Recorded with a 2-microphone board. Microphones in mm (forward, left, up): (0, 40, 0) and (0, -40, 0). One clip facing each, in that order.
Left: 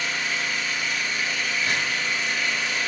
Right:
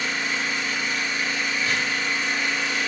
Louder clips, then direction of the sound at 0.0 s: Right 1 dB; 35° right (ahead or behind).